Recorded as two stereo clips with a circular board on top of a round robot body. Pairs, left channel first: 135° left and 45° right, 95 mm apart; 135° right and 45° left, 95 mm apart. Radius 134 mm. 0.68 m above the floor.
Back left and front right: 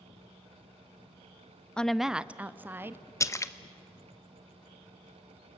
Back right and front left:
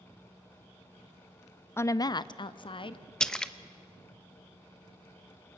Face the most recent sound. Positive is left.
turn(degrees=150)